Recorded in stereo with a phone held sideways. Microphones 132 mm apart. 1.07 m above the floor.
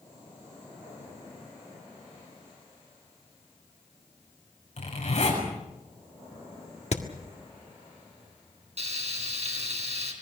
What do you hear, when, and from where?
4.8 s a zipper: 60° left (ahead or behind), 7 m
6.9 s hammering: 55° left (ahead or behind), 1.7 m
8.8 s frying: 55° right (ahead or behind), 4 m